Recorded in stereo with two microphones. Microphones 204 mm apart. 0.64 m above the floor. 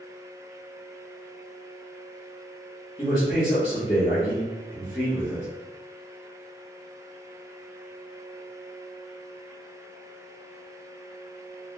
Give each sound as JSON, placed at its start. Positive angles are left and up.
{"t": 3.0, "sound": "a man speaking", "side_deg": 20, "distance_m": 0.9}